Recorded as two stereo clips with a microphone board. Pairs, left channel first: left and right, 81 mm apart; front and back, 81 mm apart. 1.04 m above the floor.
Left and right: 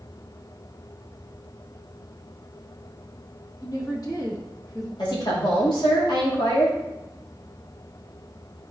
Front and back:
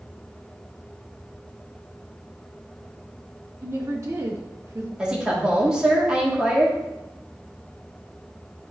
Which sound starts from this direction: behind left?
A woman speaking, at 3.6 s.